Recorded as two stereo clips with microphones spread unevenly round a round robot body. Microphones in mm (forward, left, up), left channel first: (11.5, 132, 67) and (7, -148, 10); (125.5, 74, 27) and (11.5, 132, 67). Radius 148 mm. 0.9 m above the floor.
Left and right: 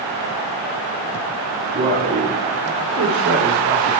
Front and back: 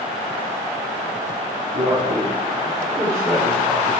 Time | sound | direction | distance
1.8 | a man speaking | 155° right | 2 m